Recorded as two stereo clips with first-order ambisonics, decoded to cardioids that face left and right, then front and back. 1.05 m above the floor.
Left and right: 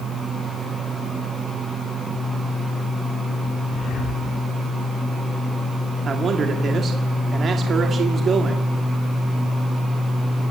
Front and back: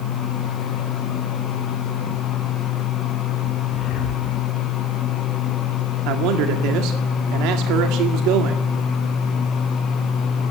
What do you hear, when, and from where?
3.7 s breathing: 45° left, 6.5 m
6.0 s a man speaking: 155° right, 2.0 m